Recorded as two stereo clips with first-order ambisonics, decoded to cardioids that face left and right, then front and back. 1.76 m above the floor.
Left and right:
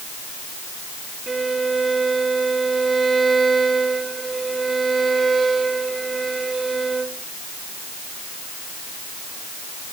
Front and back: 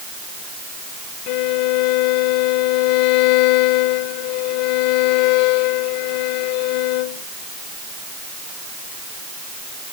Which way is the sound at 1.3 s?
15° right.